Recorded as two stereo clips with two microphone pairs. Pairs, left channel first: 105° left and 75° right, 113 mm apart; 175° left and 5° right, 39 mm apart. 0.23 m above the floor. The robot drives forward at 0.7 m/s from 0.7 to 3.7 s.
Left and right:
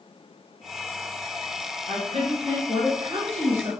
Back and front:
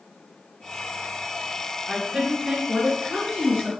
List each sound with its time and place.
1.9 s a woman speaking: 75° right, 3.5 m; by 3.7 s 95° right, 3 m